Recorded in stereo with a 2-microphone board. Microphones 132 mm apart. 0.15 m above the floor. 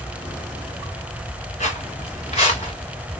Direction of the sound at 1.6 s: 55° left (ahead or behind).